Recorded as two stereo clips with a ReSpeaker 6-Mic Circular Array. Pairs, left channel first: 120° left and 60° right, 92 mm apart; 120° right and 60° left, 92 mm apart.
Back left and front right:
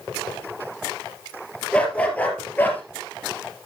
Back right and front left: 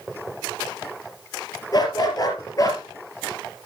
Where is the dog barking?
165° right, 3.5 m; by 2.8 s 170° right, 3.5 m.